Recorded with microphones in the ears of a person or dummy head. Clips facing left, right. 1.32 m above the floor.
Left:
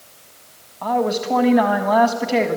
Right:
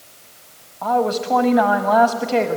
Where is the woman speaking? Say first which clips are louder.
Right 1 dB; 5° left (ahead or behind), 1.3 m.